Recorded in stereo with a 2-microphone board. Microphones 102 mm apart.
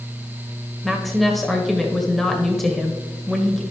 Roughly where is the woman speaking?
Centre.